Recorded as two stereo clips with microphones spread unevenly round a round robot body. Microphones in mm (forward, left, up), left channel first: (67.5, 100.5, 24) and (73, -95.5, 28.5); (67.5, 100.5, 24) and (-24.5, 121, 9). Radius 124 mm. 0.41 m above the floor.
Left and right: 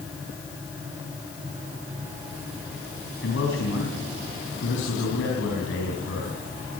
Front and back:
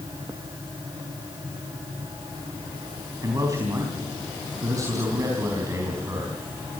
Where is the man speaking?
120° left, 4 m.